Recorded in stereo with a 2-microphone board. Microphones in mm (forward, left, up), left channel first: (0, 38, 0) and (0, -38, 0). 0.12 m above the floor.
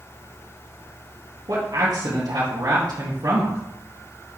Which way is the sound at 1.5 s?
60° right (ahead or behind).